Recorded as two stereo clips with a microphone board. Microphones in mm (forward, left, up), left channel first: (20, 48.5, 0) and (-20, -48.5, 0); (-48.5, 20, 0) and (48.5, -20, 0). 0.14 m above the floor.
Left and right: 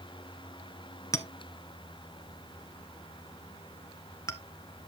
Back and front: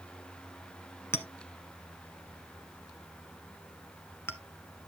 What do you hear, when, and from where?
1.1 s a clink: 105° left, 1.1 m